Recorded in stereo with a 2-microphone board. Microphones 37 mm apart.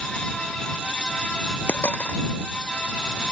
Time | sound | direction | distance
1.7 | a dropped coin | 60° left (ahead or behind) | ?